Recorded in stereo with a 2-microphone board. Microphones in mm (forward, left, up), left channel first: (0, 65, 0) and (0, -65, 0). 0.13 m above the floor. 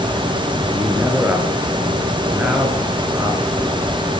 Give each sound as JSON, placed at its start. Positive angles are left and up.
{"t": 0.7, "sound": "a man speaking", "side_deg": -10, "distance_m": 2.5}